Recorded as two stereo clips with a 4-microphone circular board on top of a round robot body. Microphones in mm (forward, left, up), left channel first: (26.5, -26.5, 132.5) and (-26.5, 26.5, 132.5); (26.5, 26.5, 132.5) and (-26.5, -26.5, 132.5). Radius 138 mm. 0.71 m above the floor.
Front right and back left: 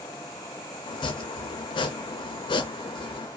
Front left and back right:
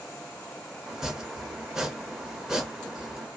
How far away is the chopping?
About 0.5 m.